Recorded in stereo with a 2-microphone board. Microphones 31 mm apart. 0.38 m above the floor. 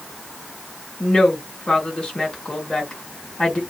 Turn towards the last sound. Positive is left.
turn(degrees=35)  # may be behind; listen again after turning